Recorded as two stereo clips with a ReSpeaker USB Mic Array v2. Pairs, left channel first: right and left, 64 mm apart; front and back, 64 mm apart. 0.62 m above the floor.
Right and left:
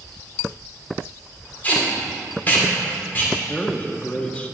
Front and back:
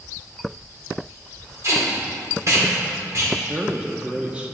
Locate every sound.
1.6 s tape being pulled: 150° right, 2 m
3.5 s a man speaking: 135° right, 0.7 m